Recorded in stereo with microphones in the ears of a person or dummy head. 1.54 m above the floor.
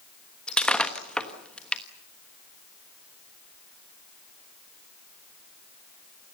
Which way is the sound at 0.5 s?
5° left (ahead or behind).